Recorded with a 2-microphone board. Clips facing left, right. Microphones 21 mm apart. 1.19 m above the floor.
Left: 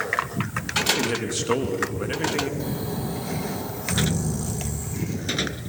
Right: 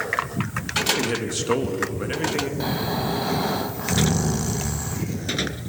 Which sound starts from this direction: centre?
A man speaking, at 0.9 s.